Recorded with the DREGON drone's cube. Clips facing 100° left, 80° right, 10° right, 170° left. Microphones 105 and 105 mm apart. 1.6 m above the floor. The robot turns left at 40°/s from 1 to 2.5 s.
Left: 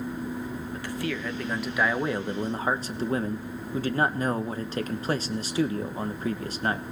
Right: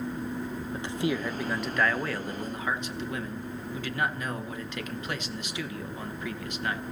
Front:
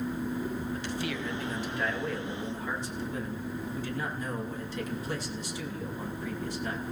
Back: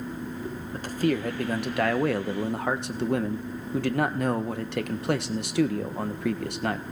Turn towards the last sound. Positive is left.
turn(degrees=155)